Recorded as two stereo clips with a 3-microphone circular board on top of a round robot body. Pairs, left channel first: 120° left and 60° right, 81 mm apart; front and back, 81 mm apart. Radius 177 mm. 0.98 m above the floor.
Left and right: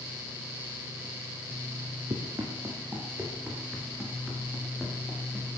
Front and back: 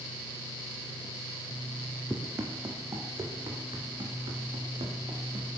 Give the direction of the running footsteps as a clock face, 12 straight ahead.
4 o'clock.